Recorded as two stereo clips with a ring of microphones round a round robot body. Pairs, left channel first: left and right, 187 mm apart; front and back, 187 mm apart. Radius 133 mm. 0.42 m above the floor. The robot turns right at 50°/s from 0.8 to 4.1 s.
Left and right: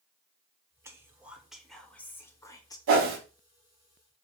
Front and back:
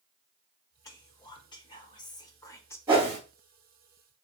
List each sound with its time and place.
0.8 s whispering: 40° right, 0.7 m; by 2.8 s 60° left, 0.7 m
2.9 s a whoosh: 100° right, 0.9 m; by 3.2 s 85° right, 0.9 m